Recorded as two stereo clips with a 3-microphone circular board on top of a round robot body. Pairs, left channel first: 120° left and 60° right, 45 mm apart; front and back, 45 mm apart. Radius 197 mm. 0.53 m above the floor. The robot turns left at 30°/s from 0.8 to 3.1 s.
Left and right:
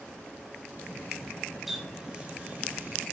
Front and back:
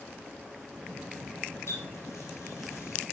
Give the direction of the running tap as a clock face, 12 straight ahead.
11 o'clock.